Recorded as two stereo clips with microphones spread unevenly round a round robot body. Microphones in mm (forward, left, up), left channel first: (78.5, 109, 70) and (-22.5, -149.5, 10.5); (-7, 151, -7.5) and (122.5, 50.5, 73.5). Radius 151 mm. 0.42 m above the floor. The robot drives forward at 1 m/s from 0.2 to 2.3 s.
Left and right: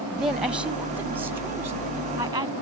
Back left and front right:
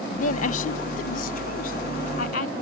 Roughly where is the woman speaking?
Behind.